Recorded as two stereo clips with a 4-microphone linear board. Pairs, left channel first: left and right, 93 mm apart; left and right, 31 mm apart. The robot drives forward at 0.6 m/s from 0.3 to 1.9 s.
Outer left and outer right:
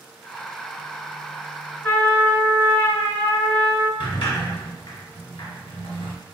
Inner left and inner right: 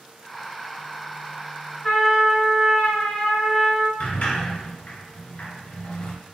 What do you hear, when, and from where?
1.8 s a trumpet: 15° left (ahead or behind), 1.3 m
4.0 s a sliding door: 60° left (ahead or behind), 0.7 m